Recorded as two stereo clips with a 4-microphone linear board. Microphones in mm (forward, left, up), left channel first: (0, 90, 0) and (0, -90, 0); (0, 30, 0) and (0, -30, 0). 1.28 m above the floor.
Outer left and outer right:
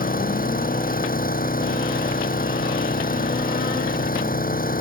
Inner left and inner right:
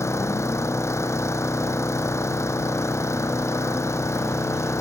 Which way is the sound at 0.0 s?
50° left (ahead or behind).